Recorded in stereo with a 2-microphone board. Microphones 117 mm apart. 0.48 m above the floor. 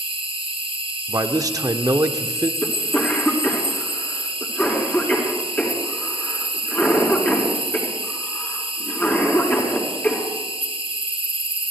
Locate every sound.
0.0 s an insect: 55° right (ahead or behind), 1.9 m
1.1 s a man speaking: 30° right (ahead or behind), 0.8 m
2.6 s a cough: 15° left (ahead or behind), 4.5 m